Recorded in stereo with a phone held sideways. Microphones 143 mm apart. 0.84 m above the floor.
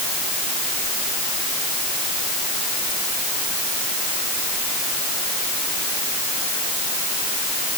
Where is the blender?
I don't hear a blender.